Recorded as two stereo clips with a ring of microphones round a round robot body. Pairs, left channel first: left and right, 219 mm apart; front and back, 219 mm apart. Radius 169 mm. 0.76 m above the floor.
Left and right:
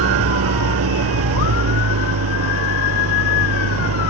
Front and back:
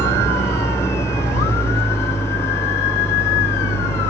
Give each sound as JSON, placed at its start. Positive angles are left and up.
{"t": 0.0, "sound": "an engine running", "azimuth_deg": -80}